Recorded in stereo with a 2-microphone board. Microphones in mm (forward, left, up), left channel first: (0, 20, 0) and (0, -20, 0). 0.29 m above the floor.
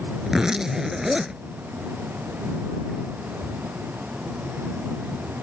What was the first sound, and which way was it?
A zipper, 15° right (ahead or behind).